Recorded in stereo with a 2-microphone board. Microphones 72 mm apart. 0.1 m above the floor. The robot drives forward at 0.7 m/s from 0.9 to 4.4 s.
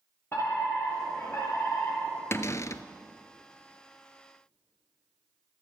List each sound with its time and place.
0.3 s a fire alarm: 30° left (ahead or behind), 4.5 m; by 2.2 s 35° left (ahead or behind), 4 m
2.3 s a cupboard door: 35° left (ahead or behind), 0.7 m; by 2.8 s 45° left (ahead or behind), 0.6 m